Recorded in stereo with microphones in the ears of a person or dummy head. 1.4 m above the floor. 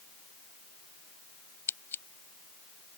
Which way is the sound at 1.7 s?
15° left (ahead or behind).